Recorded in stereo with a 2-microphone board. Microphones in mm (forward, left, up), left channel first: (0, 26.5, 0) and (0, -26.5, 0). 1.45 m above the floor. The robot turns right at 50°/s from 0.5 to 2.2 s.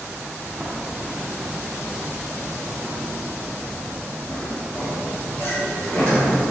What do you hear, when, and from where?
0.4 s a sliding door: 35° right (ahead or behind), 3 m; by 6.4 s 50° left (ahead or behind), 3 m